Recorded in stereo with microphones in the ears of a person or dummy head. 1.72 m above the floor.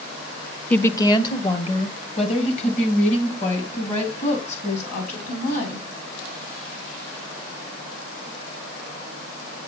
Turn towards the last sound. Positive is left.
turn(degrees=45)  # may be behind; listen again after turning